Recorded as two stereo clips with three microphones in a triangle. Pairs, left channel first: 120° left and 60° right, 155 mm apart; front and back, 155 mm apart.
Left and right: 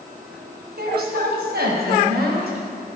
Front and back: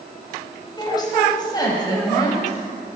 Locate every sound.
0.8 s a woman speaking: 65° right, 3.5 m